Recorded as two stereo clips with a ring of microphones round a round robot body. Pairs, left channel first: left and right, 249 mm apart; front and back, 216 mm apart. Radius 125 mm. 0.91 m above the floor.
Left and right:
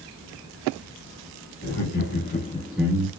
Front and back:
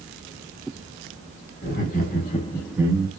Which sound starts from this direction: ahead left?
Laughter, at 1.6 s.